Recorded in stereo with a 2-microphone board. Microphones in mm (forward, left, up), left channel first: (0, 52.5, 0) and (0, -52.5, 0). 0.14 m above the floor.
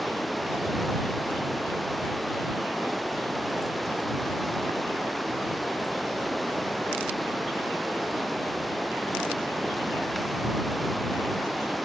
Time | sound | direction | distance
0.0 | running water | centre (ahead or behind) | ?